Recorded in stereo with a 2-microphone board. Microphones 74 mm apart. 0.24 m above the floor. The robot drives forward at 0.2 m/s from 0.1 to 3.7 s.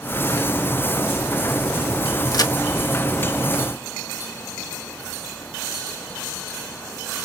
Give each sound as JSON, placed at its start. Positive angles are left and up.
{"t": 2.3, "sound": "a crack", "side_deg": 55, "distance_m": 0.7}